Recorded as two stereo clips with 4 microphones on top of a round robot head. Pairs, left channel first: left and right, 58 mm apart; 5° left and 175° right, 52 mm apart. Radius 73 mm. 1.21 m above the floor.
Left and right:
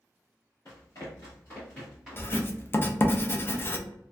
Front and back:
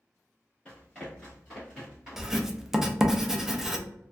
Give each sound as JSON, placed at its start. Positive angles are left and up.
{"t": 0.7, "sound": "running footsteps", "azimuth_deg": 75, "distance_m": 1.4}
{"t": 2.2, "sound": "writing", "azimuth_deg": 110, "distance_m": 0.5}